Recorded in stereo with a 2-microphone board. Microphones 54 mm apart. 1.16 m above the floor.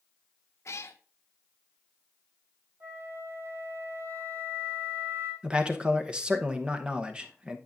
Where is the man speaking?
15° right (ahead or behind), 0.9 m.